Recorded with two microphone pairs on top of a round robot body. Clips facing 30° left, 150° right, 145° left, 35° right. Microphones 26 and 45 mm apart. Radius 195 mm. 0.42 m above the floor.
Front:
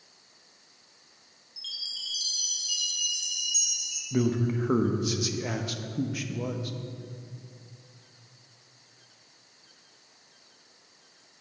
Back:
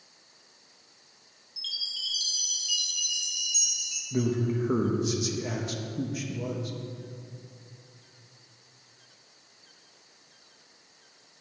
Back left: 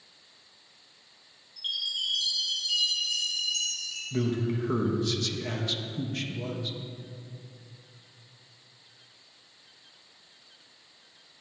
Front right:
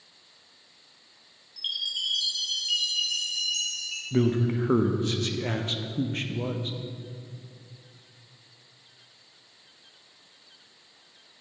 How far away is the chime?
About 0.9 m.